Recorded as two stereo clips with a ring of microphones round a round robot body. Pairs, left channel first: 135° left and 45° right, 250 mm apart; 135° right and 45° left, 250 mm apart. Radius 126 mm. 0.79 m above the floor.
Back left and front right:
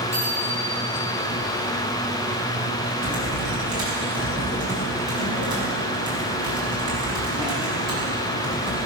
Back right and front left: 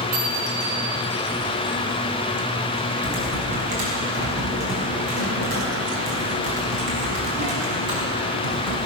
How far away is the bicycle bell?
About 6.5 m.